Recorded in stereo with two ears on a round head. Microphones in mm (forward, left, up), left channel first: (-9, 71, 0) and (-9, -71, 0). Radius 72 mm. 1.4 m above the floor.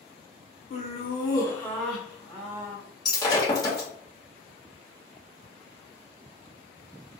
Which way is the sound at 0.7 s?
45° left (ahead or behind).